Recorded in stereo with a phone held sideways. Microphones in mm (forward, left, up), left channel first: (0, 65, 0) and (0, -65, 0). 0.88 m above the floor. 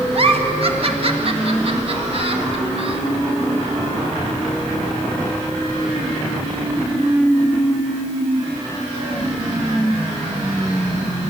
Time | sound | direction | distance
0.1 | a giggle | 45° right (ahead or behind) | 1.4 m